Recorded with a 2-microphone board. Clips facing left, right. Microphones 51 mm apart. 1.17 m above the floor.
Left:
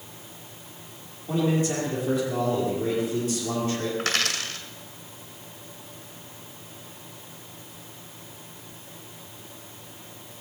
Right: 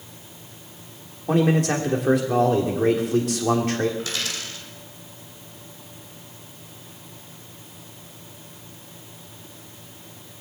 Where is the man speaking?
75° right (ahead or behind), 3 m.